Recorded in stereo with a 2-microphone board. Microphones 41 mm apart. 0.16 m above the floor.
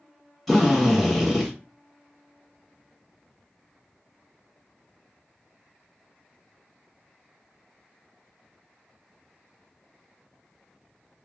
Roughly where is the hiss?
No hiss in this recording.